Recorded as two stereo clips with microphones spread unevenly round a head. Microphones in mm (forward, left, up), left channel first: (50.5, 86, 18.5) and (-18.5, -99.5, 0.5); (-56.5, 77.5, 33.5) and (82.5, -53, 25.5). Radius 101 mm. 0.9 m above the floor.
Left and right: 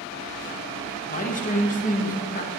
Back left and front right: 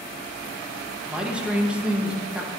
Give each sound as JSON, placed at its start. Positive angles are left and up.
{"t": 1.1, "sound": "a man speaking", "azimuth_deg": 35, "distance_m": 1.2}